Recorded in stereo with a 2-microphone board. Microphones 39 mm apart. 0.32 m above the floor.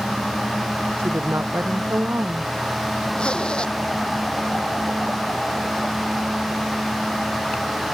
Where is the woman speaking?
85° right.